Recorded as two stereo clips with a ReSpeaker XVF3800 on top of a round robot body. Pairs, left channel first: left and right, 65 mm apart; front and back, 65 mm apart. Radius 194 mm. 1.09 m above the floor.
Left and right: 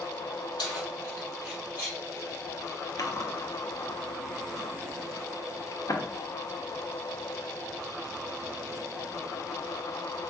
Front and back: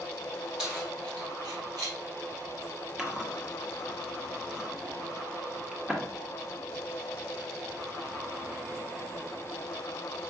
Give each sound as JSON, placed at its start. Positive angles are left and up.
{"t": 0.6, "sound": "keys jangling", "azimuth_deg": 95, "distance_m": 0.9}
{"t": 3.0, "sound": "chewing", "azimuth_deg": 100, "distance_m": 0.9}